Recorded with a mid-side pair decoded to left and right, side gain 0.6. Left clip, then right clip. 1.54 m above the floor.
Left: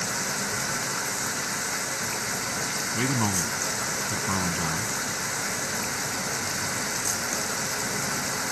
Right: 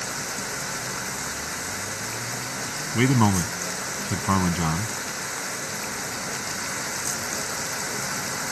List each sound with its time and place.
0.0 s running water: 10° left
2.9 s a man speaking: 40° right